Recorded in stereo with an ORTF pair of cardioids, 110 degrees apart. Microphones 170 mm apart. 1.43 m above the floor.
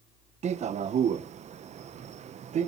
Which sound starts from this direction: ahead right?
A man speaking, at 0.4 s.